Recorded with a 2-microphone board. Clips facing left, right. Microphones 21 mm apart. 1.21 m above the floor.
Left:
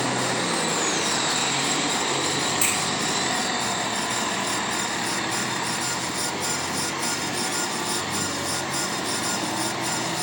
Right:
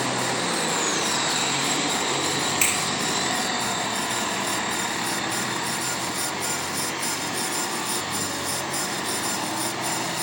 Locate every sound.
2.6 s a finger snap: 55° right (ahead or behind), 5 m